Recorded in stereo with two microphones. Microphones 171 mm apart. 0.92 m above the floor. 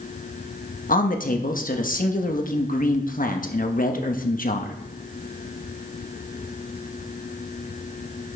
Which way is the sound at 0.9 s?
55° left (ahead or behind).